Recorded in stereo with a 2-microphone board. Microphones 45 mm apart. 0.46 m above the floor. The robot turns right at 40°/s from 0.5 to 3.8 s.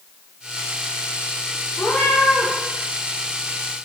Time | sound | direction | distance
1.8 | a cat meowing | 75° left (ahead or behind) | 4.5 m